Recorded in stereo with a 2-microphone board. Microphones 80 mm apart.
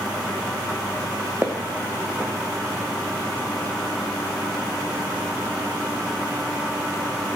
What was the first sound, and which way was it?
Footsteps, 30° right (ahead or behind).